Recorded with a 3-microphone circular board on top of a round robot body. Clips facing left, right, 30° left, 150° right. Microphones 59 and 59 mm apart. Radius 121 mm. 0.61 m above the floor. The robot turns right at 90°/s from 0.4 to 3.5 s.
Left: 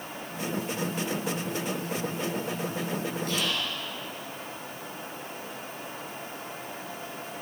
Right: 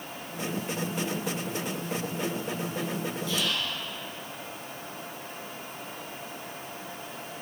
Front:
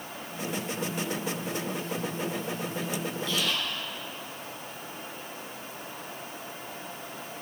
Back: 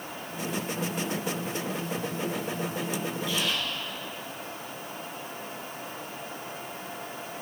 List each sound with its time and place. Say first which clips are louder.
3.3 s whispering: right 1 dB, even; 130° left, 6 m; by 3.7 s 150° left, 6 m